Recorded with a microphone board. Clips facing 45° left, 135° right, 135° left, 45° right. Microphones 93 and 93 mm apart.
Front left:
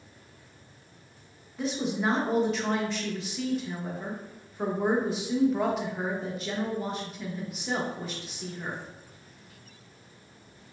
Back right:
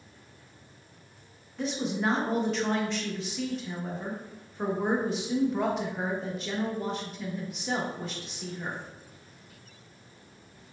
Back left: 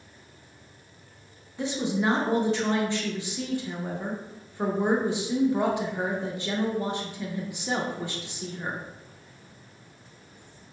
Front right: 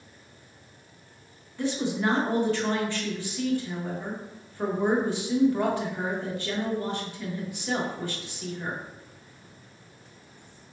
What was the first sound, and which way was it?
A woman speaking, 130° left.